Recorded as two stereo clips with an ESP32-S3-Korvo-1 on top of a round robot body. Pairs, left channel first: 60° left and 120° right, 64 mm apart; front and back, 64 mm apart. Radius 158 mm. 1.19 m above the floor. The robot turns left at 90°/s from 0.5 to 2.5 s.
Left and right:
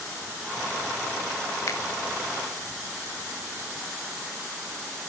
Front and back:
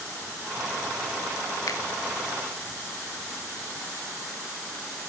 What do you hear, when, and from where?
1.7 s a finger snap: 30° left, 3 m; by 1.8 s 20° left, 3 m